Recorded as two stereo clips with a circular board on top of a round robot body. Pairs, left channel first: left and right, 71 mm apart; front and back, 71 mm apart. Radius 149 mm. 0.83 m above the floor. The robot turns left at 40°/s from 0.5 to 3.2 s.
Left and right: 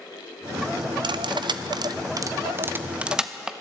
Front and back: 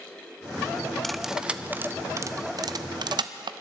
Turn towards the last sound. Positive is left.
turn(degrees=-170)